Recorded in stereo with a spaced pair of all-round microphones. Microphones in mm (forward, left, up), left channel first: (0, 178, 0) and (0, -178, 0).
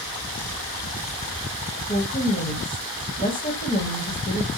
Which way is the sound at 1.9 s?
25° left (ahead or behind).